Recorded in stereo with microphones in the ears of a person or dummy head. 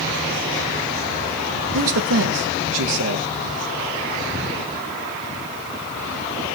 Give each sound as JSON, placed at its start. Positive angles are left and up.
{"t": 1.7, "sound": "a man speaking", "side_deg": -80, "distance_m": 1.1}